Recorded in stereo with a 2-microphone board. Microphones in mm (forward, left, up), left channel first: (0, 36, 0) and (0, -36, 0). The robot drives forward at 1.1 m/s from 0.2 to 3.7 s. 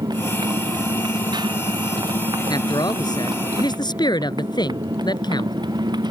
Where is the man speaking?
70° left (ahead or behind); by 5.5 s 80° left.